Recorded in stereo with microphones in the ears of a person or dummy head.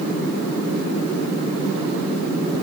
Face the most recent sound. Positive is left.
No sound to turn to.